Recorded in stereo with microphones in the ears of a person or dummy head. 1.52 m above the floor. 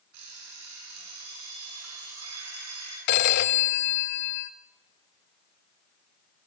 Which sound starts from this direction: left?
A phone ringing, at 3.1 s.